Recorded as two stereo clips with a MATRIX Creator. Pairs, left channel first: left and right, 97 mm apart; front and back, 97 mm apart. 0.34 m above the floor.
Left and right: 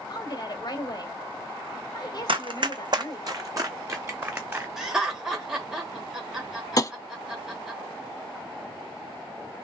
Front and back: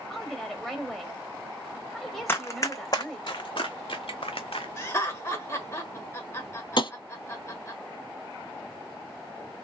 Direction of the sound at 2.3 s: 65° right.